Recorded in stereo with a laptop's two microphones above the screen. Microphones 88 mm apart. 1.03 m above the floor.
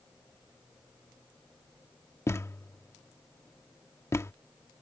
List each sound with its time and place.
2.3 s a thud: 30° left (ahead or behind)